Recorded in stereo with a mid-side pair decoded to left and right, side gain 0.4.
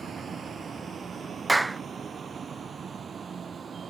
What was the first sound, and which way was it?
A vehicle, 50° right.